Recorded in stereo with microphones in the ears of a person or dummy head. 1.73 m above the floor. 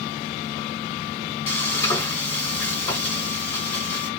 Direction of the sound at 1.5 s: 20° left (ahead or behind).